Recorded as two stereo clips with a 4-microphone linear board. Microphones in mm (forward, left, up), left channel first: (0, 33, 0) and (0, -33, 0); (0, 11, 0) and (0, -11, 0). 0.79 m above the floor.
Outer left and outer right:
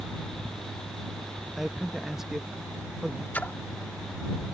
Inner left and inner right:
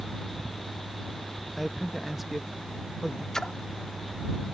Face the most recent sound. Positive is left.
turn(degrees=25)  # may be behind; listen again after turning